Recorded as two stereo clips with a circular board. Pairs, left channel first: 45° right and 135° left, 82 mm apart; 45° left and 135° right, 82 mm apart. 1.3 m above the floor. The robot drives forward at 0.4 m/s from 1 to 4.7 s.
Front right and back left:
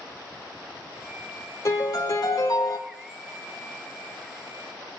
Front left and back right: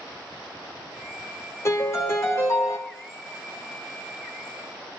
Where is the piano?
5° right, 2.5 m.